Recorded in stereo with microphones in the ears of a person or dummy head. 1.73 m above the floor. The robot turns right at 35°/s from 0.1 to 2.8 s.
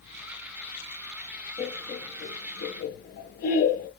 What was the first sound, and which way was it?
Laughter, 15° left (ahead or behind).